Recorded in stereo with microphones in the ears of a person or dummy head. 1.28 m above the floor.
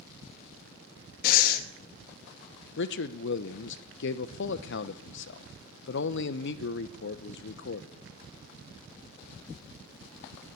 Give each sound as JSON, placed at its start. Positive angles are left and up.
{"t": 1.2, "sound": "breathing", "side_deg": 55, "distance_m": 1.3}
{"t": 2.8, "sound": "a man speaking", "side_deg": 65, "distance_m": 0.9}